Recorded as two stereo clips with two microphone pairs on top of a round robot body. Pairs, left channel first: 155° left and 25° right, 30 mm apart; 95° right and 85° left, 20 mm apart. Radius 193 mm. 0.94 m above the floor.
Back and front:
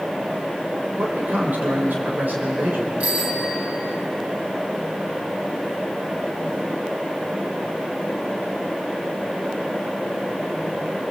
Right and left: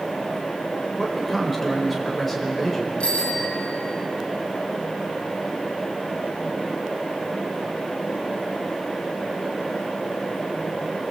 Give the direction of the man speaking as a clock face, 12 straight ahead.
12 o'clock.